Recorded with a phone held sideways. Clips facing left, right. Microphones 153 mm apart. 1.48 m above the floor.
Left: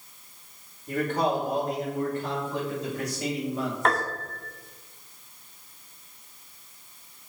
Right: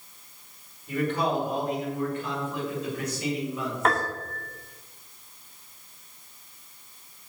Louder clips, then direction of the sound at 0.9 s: Left 1 dB; 45° left (ahead or behind).